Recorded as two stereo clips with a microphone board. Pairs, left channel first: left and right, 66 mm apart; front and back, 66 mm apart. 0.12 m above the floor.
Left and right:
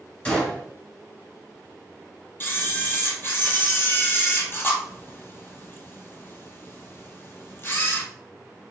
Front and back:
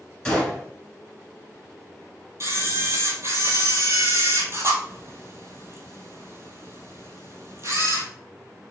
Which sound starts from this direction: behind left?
A camera shutter, at 2.4 s.